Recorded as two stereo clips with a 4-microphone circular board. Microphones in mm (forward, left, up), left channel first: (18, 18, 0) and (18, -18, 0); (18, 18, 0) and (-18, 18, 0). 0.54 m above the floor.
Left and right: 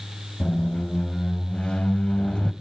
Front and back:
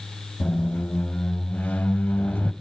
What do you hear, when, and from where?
0.4 s a squeak: 30° left, 0.6 m